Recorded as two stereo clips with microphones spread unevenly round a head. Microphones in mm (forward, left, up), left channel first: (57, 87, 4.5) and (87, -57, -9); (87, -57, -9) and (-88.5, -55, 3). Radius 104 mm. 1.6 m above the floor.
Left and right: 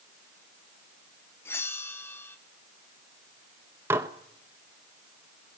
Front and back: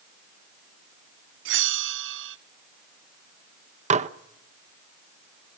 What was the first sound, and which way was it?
A bell, straight behind.